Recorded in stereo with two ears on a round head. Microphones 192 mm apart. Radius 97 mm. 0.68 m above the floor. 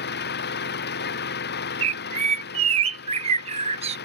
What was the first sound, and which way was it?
An engine running, 55° left (ahead or behind).